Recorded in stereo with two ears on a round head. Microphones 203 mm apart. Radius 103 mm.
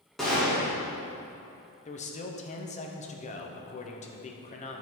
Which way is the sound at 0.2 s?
Centre (ahead or behind).